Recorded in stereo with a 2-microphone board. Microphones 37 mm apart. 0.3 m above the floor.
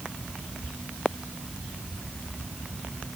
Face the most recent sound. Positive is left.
No sound to turn to.